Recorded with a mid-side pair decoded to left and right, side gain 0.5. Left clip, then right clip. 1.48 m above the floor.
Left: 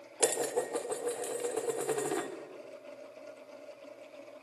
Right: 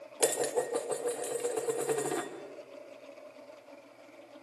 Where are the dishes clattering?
Straight ahead, 3 m.